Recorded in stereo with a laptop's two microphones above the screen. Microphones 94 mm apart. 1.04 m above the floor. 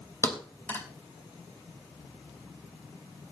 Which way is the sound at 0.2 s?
25° left (ahead or behind).